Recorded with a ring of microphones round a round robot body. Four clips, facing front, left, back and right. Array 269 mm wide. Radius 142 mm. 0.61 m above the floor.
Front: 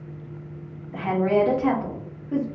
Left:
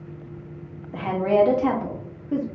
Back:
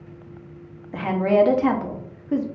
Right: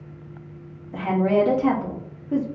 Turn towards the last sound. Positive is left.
turn(degrees=170)